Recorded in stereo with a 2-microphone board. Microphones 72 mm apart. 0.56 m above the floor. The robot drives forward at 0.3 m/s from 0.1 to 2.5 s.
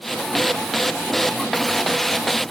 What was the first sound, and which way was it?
Only background noise.